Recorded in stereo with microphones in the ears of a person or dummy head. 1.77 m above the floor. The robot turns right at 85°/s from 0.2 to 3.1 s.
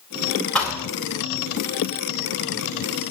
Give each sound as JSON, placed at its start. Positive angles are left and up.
{"t": 0.6, "sound": "a thud", "side_deg": 5, "distance_m": 3.5}